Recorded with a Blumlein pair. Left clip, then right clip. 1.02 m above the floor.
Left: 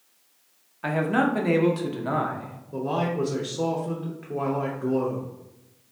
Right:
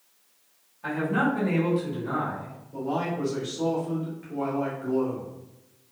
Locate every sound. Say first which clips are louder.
0.8 s a man speaking: left 2 dB; 60° left, 0.7 m
2.7 s a man speaking: left 3 dB; 35° left, 0.6 m